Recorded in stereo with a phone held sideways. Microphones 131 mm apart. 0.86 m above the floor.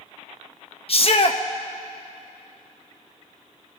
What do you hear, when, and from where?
0.9 s a shout: 50° left (ahead or behind), 0.7 m